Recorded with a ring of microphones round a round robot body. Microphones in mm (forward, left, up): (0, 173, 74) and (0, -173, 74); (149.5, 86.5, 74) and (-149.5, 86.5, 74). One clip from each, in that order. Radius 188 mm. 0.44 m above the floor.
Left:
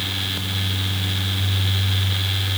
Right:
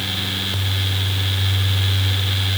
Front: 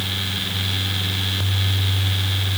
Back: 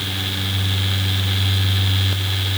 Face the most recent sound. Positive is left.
No sound to turn to.